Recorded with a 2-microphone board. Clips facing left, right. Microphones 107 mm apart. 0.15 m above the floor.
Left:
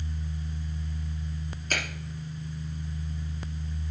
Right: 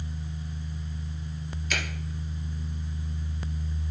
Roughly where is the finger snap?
Left.